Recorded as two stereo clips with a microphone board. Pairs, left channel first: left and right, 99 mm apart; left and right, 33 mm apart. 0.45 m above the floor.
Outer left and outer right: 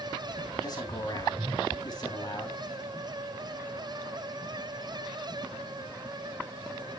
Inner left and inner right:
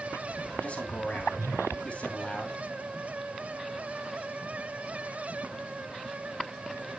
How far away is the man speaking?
About 3 m.